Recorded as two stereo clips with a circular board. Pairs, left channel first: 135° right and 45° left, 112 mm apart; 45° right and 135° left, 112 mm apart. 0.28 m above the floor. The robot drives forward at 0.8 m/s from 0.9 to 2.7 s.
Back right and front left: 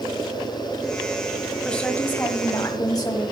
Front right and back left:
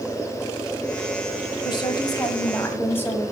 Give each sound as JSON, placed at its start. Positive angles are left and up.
{"t": 1.6, "sound": "a woman speaking", "azimuth_deg": -55, "distance_m": 1.5}